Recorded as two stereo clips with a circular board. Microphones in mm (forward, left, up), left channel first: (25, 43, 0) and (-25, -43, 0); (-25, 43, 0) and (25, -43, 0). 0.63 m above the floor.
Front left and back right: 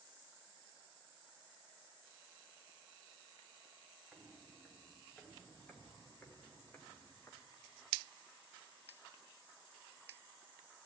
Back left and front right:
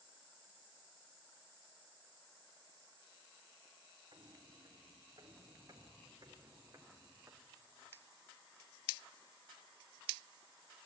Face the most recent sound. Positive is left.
turn(degrees=0)